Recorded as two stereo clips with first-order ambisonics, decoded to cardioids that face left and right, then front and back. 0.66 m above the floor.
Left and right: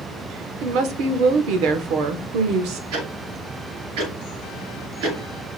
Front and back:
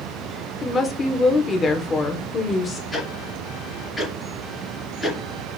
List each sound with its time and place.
0.6 s a woman speaking: 70° right, 1.4 m
2.9 s ticking: 85° right, 4.5 m